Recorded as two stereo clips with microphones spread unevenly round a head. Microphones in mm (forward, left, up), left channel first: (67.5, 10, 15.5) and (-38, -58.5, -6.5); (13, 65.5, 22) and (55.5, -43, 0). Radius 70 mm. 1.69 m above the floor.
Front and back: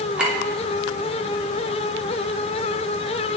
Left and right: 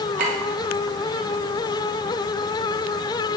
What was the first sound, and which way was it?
A clink, 60° right.